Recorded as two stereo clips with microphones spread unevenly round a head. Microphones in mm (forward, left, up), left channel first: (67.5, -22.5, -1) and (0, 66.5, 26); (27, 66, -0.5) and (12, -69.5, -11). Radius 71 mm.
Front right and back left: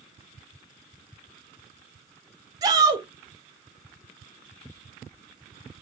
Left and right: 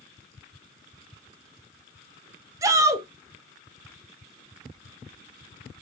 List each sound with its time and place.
2.6 s a shout: 160° right, 1.3 m